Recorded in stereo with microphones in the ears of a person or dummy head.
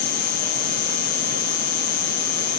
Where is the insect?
55° left (ahead or behind).